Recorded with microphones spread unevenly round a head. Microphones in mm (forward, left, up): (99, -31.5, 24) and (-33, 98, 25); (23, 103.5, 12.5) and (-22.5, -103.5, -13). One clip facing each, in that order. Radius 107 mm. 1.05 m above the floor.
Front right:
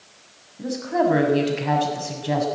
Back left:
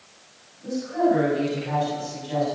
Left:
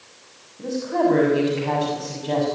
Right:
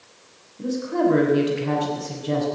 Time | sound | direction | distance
0.6 | a woman speaking | 30° right | 6.5 m